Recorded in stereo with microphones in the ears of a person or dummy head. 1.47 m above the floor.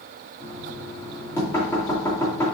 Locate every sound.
0.4 s knocking: 20° left (ahead or behind), 2.5 m